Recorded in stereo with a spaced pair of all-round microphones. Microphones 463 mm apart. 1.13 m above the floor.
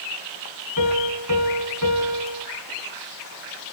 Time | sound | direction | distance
0.8 | a piano | 45° right (ahead or behind) | 3.5 m